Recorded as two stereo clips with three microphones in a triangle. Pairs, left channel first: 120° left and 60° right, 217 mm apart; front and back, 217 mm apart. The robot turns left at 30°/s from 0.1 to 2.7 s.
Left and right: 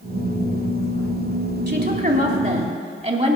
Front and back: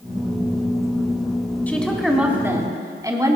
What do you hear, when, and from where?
1.7 s a woman speaking: 80° right, 2.5 m; by 3.4 s 110° right, 2.5 m